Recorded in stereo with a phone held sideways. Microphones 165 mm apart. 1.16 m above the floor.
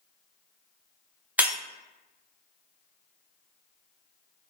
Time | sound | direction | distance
1.4 | breaking glass | 10° right (ahead or behind) | 0.6 m